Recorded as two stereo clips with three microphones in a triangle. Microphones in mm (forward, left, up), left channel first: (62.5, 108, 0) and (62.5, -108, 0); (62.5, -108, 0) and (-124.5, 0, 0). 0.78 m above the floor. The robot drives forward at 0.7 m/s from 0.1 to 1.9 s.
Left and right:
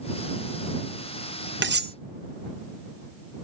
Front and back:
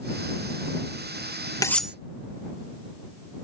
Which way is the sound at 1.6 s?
105° right.